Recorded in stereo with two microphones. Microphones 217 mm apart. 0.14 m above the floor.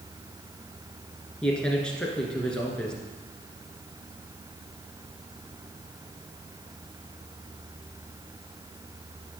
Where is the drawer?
No drawer in this recording.